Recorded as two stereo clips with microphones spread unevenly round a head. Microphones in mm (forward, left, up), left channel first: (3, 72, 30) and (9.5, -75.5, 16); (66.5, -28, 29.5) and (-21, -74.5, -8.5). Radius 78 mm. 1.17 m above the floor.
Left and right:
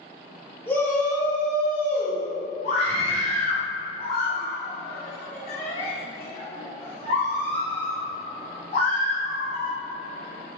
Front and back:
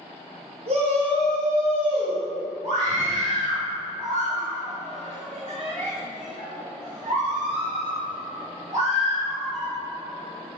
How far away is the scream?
About 1.8 m.